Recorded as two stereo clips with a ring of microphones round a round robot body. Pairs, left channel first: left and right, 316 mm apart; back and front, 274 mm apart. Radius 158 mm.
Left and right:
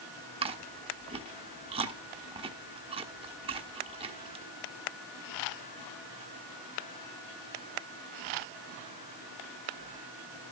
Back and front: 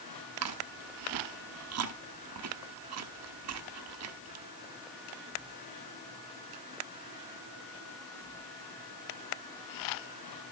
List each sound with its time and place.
0.4 s chewing: 20° right, 1.2 m